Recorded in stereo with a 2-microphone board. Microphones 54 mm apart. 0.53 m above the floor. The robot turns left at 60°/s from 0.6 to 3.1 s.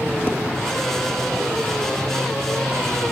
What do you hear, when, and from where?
0.3 s dishes clattering: 35° left (ahead or behind), 1.5 m